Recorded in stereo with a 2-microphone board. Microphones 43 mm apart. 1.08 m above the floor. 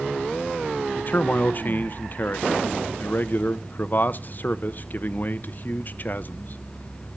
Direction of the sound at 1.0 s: 45° left (ahead or behind).